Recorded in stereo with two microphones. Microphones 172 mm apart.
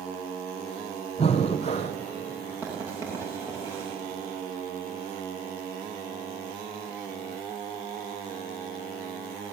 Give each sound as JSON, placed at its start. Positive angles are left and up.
{"t": 1.2, "sound": "breathing", "side_deg": 35, "distance_m": 2.5}
{"t": 2.6, "sound": "writing", "side_deg": -15, "distance_m": 9.0}